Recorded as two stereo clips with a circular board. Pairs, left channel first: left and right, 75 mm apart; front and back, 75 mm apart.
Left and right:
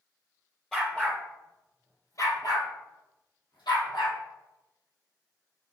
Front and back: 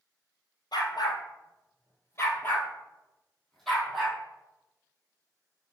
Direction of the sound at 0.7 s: 5° left.